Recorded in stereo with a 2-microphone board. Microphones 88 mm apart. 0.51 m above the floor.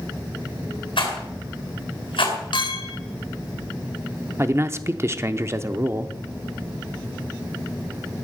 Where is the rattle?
70° left (ahead or behind), 3.5 m.